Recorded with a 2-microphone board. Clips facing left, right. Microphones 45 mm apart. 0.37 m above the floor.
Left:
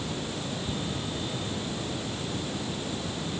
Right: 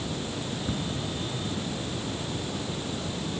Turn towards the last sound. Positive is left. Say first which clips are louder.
# right 5 dB
turn(degrees=-15)  # may be behind; listen again after turning